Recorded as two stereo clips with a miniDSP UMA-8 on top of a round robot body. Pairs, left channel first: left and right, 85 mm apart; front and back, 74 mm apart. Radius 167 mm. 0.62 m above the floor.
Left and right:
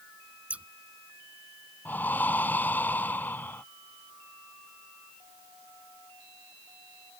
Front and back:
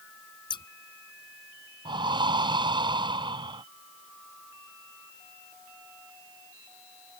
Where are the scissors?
15° right.